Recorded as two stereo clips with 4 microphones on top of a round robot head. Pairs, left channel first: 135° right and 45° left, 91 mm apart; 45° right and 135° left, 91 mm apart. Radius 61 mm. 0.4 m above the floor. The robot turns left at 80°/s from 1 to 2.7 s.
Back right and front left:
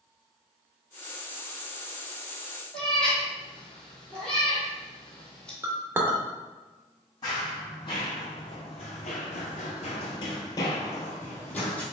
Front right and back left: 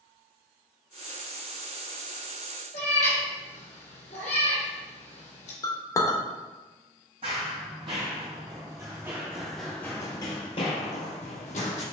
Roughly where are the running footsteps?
Behind.